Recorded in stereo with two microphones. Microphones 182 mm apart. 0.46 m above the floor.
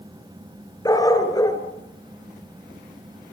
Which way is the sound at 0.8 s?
20° left (ahead or behind).